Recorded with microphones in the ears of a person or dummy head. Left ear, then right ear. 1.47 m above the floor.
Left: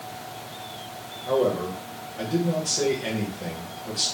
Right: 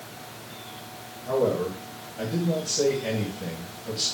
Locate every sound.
1.3 s a man speaking: 25° left (ahead or behind), 1.2 m